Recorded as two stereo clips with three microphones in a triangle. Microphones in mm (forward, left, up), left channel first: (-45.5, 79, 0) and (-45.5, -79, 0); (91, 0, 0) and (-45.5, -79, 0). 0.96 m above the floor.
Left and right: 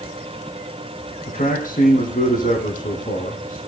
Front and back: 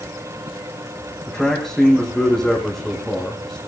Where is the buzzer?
I don't hear a buzzer.